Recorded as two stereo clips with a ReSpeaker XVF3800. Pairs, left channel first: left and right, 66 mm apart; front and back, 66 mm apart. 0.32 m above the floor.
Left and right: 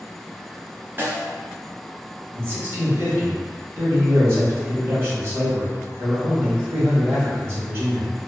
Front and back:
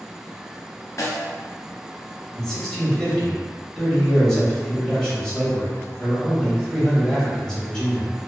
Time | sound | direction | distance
1.0 | a snare drum | 35° right | 0.7 m
2.4 | a man speaking | 75° right | 1.2 m